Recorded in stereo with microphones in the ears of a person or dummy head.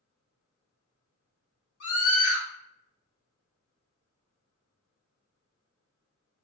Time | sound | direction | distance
1.8 | a scream | 80° left | 1.2 m